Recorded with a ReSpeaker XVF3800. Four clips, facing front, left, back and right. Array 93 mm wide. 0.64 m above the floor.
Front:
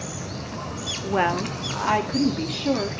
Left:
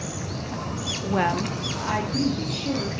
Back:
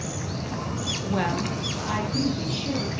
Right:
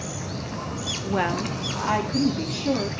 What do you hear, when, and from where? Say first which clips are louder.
1.0 s a woman speaking: left 1 dB, front 4 dB; 30° left, 0.6 m; by 2.9 s 20° right, 1.3 m